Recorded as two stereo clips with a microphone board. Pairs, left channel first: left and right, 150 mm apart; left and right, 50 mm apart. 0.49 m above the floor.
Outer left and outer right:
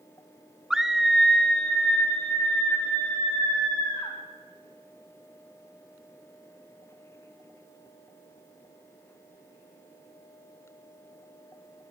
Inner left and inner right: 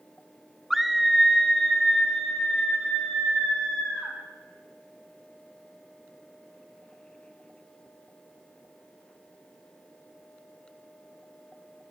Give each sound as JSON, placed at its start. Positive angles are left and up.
{"t": 0.7, "sound": "a scream", "side_deg": -5, "distance_m": 0.7}